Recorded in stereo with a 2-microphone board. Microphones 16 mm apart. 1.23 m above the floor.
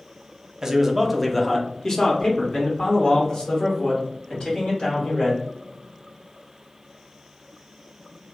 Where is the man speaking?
25° right (ahead or behind), 0.6 m; by 5.4 s 75° left (ahead or behind), 2 m.